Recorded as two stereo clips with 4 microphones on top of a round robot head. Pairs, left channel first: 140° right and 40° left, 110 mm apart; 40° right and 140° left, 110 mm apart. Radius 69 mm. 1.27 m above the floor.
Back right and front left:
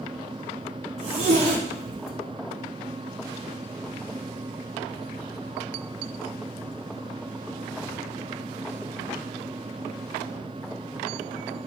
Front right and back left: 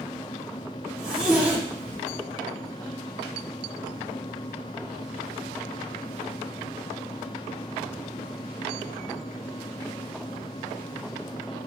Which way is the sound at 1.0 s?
60° left.